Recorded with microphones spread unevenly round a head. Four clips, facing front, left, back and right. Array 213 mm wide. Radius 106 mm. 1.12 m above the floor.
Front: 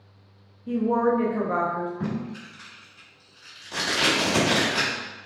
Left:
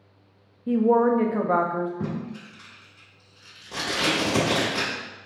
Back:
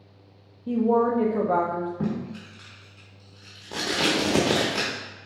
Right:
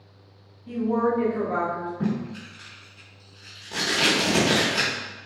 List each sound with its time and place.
0.7 s a woman speaking: 130° left, 0.6 m
2.0 s tape being pulled: 175° right, 1.2 m